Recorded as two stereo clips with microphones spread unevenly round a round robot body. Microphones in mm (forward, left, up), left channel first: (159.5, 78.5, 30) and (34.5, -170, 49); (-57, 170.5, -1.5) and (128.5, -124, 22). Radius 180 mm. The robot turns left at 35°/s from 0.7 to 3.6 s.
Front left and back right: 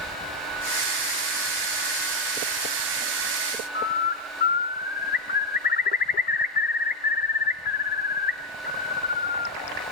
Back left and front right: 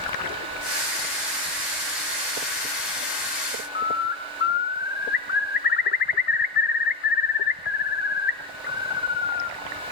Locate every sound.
3.8 s a bird: 85° left, 1.1 m